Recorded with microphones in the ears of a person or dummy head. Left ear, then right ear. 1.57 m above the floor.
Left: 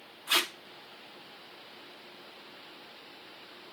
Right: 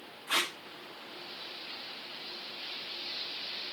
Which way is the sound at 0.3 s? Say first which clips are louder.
Left 2 dB; 15° left (ahead or behind).